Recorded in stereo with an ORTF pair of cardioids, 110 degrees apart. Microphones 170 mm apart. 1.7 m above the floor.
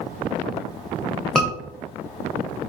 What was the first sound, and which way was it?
A scream, 5° left.